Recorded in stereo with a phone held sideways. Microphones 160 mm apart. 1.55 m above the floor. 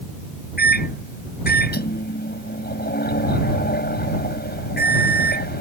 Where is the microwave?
85° left.